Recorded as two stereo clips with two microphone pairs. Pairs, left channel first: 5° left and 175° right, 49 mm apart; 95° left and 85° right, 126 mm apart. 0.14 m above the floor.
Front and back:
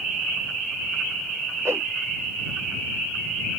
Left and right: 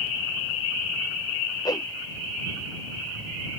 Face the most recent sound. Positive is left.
turn(degrees=155)